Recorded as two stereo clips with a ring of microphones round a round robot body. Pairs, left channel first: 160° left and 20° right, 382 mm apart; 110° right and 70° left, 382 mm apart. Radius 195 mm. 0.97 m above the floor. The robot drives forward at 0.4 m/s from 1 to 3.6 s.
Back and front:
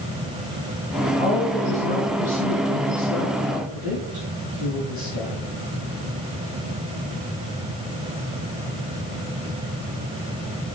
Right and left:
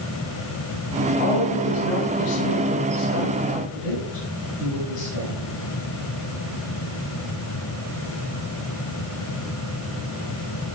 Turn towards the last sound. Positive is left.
turn(degrees=-135)